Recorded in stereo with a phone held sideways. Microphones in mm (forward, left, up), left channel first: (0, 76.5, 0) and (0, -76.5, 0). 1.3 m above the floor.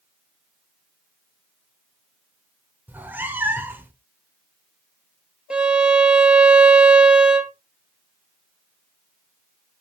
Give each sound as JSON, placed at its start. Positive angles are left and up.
{"t": 2.9, "sound": "a cat meowing", "side_deg": -10, "distance_m": 1.1}
{"t": 5.5, "sound": "a violin", "side_deg": -5, "distance_m": 0.8}